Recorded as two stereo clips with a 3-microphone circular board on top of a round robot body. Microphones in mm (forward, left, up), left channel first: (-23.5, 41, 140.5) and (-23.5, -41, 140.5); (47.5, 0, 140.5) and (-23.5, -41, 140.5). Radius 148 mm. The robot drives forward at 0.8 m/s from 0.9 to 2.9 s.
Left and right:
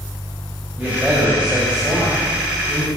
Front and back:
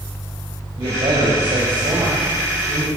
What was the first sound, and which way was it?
A man speaking, 165° right.